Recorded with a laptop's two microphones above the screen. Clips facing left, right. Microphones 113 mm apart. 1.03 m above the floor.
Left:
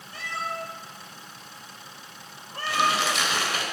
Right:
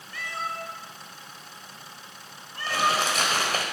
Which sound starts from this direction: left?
A cat meowing, at 0.1 s.